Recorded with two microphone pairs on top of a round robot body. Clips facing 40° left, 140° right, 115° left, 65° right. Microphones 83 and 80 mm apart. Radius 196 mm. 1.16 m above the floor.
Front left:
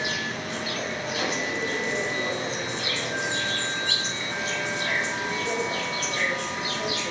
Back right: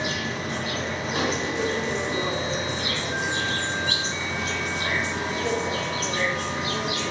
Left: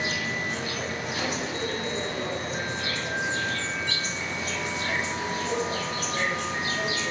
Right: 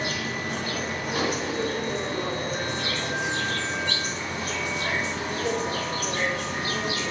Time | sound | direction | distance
0.0 | an insect | 105° right | 3 m